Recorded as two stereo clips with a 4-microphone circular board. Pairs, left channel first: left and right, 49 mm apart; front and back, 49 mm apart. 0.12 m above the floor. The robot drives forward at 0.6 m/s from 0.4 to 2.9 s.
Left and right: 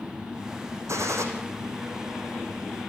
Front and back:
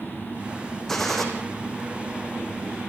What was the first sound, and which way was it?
A gunshot, 85° right.